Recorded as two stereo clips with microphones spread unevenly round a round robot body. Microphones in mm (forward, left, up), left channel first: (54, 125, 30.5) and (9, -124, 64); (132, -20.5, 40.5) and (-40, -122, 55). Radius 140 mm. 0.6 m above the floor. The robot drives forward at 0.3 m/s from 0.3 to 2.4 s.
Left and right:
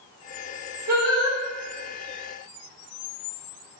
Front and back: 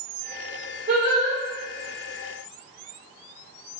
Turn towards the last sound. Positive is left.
turn(degrees=-130)